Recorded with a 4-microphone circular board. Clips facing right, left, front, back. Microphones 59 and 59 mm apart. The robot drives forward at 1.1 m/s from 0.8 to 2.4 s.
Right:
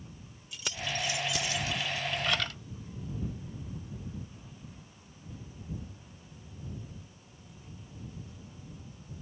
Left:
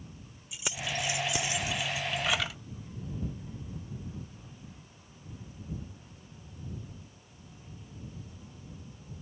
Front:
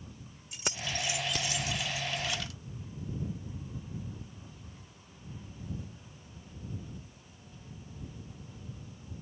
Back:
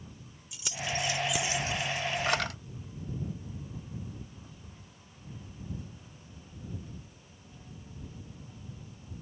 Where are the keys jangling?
20° left; by 2.6 s 170° left.